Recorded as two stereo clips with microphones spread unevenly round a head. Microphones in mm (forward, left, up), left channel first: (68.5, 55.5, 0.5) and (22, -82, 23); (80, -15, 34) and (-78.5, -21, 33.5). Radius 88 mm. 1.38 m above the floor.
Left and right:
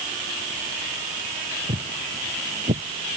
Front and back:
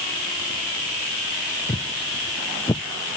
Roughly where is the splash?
No splash in this recording.